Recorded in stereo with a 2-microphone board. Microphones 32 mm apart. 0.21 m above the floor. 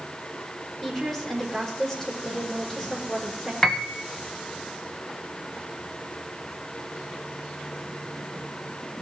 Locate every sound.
0.8 s a woman speaking: 10° left (ahead or behind), 7 m
3.6 s a piano: 20° left (ahead or behind), 1.1 m